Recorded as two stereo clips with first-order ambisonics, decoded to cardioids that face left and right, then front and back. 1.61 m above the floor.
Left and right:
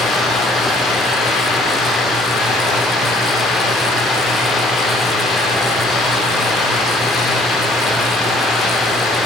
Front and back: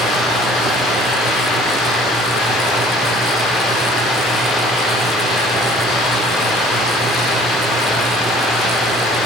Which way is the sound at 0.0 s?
40° left.